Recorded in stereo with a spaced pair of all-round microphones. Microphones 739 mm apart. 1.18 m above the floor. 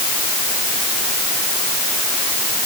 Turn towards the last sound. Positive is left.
No sound to turn to.